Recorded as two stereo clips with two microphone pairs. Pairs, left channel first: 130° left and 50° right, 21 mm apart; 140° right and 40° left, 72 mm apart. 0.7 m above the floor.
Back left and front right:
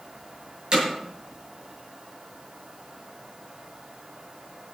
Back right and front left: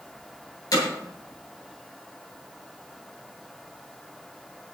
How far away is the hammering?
About 7 m.